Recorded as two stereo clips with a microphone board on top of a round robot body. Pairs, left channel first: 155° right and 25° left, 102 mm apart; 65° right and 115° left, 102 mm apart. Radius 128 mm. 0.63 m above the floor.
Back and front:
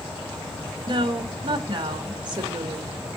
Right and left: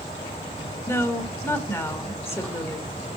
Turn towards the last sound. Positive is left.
turn(degrees=-10)